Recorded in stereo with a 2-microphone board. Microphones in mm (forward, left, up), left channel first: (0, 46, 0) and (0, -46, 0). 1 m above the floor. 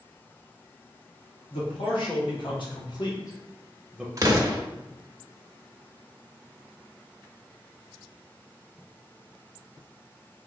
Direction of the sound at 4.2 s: 40° right (ahead or behind).